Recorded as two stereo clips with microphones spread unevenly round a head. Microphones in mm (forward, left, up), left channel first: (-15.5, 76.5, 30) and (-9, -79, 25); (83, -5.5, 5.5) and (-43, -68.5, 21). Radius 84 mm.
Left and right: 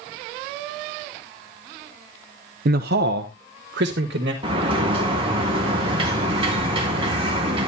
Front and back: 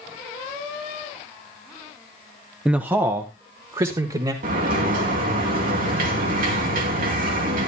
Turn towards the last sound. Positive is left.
turn(degrees=-145)